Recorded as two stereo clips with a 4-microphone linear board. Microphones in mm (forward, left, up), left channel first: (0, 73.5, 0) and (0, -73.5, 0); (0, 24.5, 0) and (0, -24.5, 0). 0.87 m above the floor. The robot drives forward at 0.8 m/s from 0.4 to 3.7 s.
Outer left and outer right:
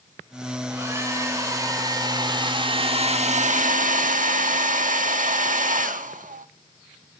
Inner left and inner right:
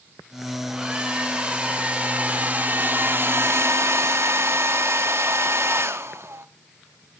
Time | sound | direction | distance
0.7 | a hair dryer | 20° right (ahead or behind) | 3 m